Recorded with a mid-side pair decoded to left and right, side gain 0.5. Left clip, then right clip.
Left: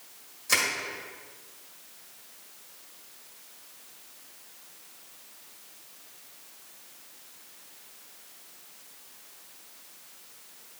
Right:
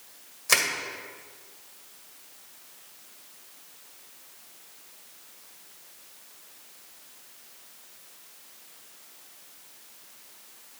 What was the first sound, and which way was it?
Crushing, 40° right.